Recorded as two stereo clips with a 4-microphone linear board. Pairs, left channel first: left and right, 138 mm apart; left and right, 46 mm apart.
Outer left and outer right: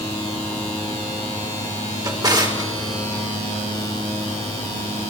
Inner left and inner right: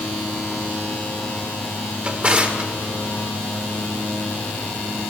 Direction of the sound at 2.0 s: 30° right (ahead or behind).